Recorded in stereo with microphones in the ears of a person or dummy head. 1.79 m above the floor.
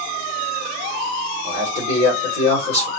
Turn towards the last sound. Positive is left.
turn(degrees=25)  # may be behind; listen again after turning